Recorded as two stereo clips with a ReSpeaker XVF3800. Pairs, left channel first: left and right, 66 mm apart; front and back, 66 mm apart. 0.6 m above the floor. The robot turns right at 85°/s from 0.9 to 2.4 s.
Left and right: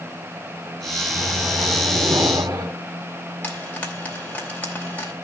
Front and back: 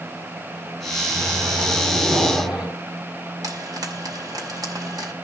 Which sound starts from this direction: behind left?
A microwave, at 1.1 s.